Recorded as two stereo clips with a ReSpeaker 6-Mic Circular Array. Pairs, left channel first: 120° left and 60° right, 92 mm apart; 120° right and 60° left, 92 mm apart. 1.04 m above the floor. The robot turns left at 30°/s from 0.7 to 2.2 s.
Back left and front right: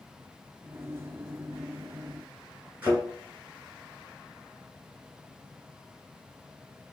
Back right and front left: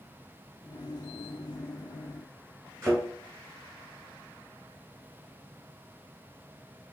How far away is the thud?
About 1.8 m.